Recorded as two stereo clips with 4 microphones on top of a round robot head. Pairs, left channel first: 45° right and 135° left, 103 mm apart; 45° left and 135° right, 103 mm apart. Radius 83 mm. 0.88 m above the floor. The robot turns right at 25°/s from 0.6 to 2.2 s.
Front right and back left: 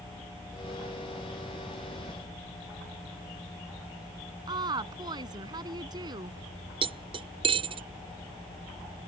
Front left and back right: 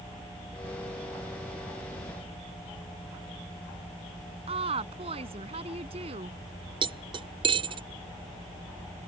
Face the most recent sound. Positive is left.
turn(degrees=180)